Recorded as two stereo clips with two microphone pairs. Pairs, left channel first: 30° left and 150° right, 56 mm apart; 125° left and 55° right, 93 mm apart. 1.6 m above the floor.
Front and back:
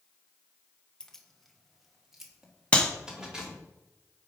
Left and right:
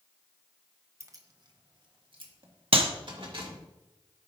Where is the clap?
35° right, 1.0 m.